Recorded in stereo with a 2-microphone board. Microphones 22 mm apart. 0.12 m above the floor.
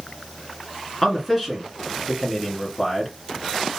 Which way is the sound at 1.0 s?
5° left (ahead or behind).